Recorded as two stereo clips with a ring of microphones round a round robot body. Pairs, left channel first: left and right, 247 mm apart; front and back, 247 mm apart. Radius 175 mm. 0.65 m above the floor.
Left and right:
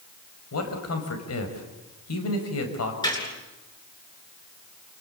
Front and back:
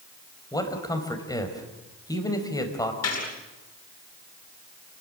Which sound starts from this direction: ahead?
A gunshot, at 3.0 s.